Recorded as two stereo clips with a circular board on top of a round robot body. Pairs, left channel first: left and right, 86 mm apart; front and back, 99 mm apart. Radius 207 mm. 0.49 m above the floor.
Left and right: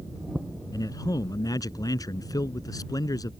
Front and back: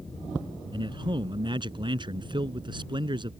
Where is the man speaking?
140° left.